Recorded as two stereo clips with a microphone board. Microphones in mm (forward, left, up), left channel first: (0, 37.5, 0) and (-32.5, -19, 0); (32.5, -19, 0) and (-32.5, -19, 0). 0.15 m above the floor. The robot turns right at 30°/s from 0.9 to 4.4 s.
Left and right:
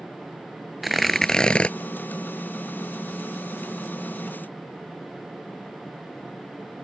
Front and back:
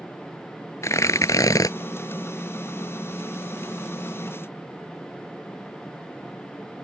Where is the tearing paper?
35° right; by 1.7 s 10° right.